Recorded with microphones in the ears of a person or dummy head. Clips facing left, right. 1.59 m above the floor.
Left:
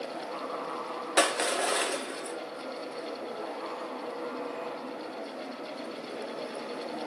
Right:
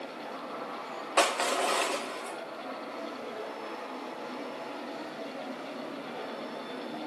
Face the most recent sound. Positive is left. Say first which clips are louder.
# even
turn(degrees=20)  # may be behind; listen again after turning